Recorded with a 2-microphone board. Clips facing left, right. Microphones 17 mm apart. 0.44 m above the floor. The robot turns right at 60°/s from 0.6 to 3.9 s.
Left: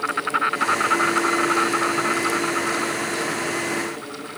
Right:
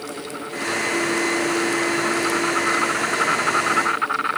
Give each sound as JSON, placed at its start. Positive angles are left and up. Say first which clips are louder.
{"t": 0.0, "sound": "an insect", "louder": "left 9 dB", "azimuth_deg": 70}